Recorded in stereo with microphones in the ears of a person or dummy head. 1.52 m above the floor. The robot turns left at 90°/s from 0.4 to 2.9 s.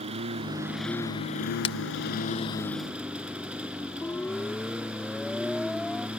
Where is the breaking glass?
35° left (ahead or behind); by 1.8 s 25° left (ahead or behind).